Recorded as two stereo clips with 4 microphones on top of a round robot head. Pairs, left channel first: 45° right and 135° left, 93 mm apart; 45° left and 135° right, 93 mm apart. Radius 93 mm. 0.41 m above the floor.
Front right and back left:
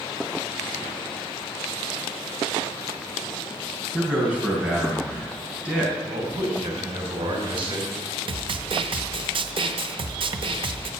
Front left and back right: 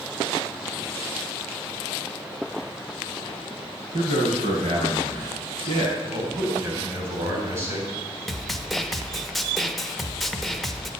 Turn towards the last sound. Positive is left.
turn(degrees=135)